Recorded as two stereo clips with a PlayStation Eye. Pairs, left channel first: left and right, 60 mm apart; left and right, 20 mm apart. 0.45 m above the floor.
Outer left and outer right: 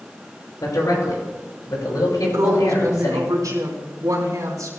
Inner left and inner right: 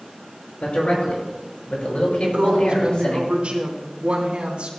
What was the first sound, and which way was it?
A man speaking, 80° left.